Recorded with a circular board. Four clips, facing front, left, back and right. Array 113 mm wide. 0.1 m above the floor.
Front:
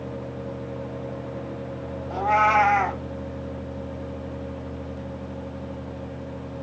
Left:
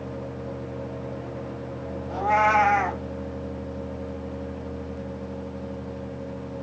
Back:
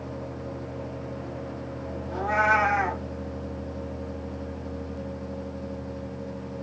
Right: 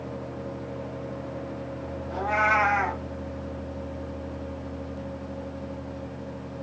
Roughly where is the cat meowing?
Ahead.